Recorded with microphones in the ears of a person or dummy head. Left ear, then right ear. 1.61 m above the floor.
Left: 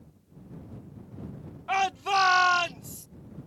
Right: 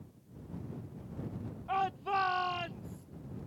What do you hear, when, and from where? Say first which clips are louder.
1.7 s a shout: left 7 dB; 60° left (ahead or behind); by 3.1 s 70° left (ahead or behind)